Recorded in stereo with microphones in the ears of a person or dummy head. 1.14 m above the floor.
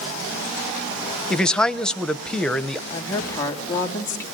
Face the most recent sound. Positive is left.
turn(degrees=15)  # may be behind; listen again after turning